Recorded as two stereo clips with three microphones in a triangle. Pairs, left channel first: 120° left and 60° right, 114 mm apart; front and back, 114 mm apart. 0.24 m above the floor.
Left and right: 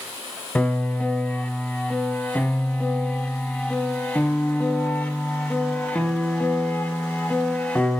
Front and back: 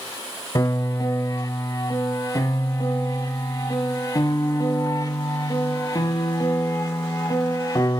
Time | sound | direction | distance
0.6 | a piano | 50° left | 1.2 m